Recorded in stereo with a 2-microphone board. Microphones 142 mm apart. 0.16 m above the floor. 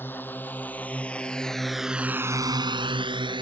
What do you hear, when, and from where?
0.0 s a drone: 15° left (ahead or behind); by 3.4 s 35° right (ahead or behind)